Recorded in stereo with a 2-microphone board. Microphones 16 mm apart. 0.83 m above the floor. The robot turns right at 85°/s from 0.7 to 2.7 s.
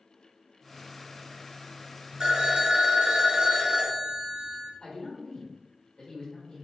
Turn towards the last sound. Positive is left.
turn(degrees=60)  # may be behind; listen again after turning